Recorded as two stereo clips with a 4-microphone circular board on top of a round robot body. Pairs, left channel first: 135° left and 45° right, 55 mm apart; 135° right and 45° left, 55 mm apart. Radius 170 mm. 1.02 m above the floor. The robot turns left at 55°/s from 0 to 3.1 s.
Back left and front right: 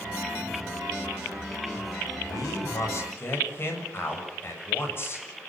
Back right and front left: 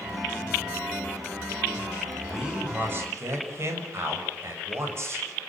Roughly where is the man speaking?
Behind left.